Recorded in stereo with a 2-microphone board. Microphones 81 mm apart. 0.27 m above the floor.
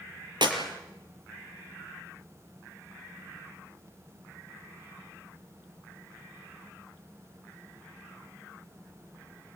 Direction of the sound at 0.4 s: 65° right (ahead or behind).